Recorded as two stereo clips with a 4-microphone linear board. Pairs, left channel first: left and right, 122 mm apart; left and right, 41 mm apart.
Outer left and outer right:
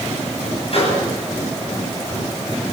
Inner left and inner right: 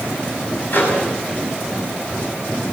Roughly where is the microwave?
Left.